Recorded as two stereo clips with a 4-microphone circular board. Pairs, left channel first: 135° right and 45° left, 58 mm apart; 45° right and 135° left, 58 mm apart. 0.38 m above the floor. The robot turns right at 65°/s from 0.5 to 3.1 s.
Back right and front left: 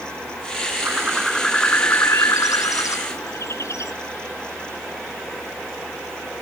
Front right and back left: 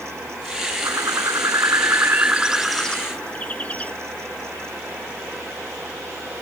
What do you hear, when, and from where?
0.8 s a bird: 105° left; by 3.9 s 110° right